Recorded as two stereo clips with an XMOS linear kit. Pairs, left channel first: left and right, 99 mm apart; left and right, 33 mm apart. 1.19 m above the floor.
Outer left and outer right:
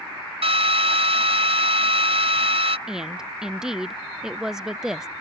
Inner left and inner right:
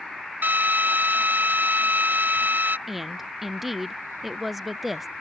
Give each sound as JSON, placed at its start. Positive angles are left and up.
{"t": 0.4, "sound": "a drill", "side_deg": -75}
{"t": 2.9, "sound": "a woman speaking", "side_deg": -5}